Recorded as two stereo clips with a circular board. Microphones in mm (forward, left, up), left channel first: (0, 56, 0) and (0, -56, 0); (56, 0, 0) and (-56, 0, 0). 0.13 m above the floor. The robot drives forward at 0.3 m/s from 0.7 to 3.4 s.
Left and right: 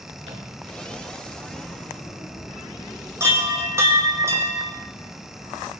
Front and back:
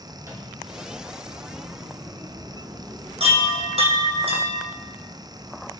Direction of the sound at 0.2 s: 115° right.